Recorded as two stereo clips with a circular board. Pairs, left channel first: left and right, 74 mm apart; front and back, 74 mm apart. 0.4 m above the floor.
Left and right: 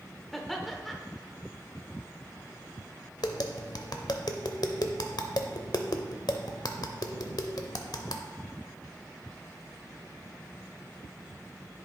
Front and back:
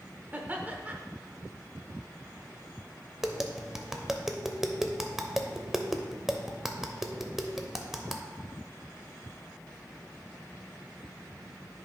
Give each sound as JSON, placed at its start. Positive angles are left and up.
{"t": 0.3, "sound": "laughter", "azimuth_deg": 180, "distance_m": 0.8}
{"t": 3.2, "sound": "tapping", "azimuth_deg": 95, "distance_m": 0.6}